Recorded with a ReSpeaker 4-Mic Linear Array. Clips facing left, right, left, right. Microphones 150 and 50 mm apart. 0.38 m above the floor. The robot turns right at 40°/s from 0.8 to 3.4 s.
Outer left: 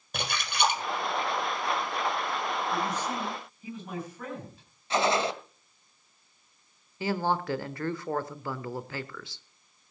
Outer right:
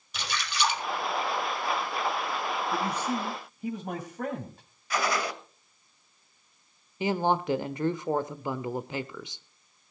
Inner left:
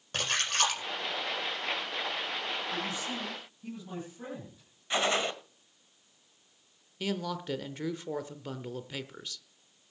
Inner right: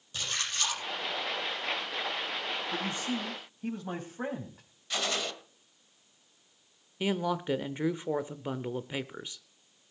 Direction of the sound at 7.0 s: 20° right (ahead or behind).